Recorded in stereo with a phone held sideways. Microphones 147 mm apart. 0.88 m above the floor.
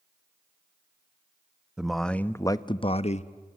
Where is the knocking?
No knocking in this recording.